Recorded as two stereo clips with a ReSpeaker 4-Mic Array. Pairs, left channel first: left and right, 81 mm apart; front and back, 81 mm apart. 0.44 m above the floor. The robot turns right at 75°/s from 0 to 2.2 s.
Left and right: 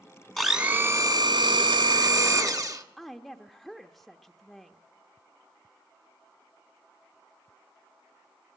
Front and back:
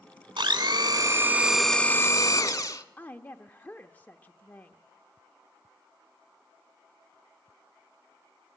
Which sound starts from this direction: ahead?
A woman speaking, at 3.0 s.